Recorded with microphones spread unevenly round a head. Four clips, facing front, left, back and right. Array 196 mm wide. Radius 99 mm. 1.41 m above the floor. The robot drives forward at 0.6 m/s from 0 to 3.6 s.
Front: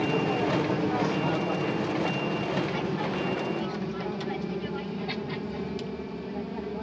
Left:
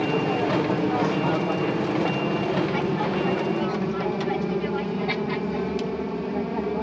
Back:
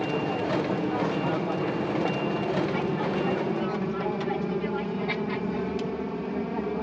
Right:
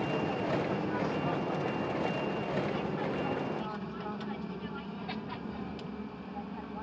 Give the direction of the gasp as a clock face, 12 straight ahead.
No gasp in this recording.